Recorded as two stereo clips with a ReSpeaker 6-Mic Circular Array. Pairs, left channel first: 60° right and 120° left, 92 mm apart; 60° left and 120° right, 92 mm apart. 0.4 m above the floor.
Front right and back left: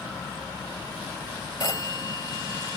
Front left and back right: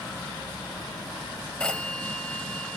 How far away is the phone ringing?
About 1.1 m.